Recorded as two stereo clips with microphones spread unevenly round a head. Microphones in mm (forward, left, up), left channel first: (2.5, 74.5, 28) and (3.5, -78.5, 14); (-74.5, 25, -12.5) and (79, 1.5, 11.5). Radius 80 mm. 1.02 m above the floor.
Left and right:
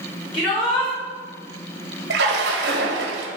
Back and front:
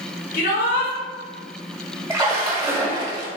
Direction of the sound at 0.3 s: 155° left.